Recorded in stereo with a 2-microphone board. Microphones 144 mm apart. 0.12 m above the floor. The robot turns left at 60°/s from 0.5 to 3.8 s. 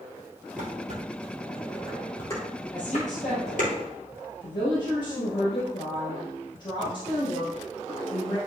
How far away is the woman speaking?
About 3 m.